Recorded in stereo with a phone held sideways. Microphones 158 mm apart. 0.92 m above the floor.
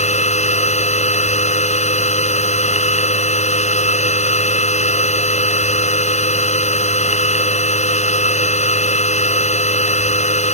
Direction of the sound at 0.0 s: 45° left (ahead or behind).